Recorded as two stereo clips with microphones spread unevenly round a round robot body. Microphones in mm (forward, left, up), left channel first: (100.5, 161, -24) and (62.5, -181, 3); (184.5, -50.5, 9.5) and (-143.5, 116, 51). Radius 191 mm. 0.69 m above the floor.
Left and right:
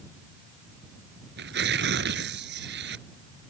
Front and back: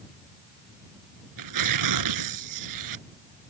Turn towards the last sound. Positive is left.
turn(degrees=-160)